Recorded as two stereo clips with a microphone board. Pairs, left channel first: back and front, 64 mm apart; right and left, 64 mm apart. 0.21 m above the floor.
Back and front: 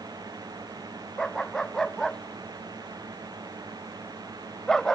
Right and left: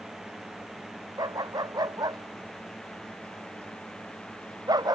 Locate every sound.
0.0 s a drone: 5° left; by 5.0 s 10° right
1.2 s a dog barking: 95° left